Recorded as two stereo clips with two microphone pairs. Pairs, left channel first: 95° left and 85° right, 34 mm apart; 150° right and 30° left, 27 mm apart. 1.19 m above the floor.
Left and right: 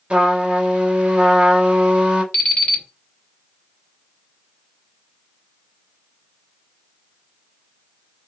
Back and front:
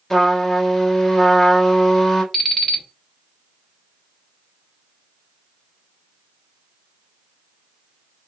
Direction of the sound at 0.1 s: 75° right.